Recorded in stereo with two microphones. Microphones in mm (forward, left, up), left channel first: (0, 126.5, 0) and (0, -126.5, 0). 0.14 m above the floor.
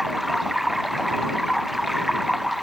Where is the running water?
Centre (ahead or behind).